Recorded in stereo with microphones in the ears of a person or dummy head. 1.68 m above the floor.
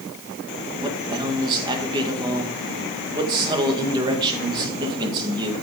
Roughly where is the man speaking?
Right.